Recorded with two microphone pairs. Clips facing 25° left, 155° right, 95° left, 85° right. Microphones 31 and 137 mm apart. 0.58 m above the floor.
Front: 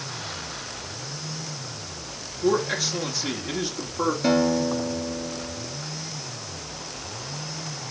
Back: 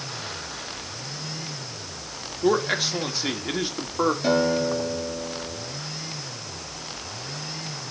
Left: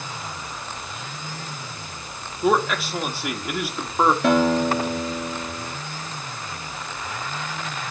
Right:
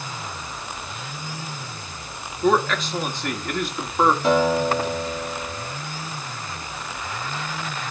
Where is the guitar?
110° left, 5 m.